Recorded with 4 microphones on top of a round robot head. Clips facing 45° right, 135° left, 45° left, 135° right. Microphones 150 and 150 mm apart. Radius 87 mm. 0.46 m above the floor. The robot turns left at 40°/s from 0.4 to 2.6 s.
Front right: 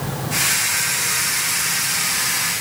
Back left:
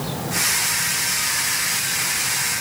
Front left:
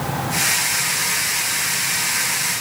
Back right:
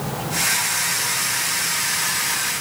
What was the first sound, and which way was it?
Only background noise.